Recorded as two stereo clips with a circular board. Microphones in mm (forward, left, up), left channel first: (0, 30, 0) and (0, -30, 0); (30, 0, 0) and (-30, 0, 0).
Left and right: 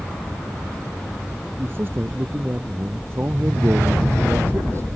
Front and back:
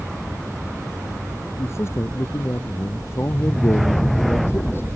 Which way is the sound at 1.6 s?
40° right.